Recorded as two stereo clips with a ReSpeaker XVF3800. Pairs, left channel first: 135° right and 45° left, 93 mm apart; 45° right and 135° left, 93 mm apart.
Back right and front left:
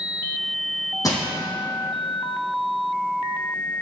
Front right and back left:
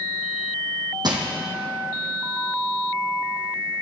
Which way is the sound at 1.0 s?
175° left.